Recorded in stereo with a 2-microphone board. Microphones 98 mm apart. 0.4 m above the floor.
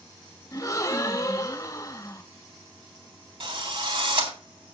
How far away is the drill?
About 3.5 m.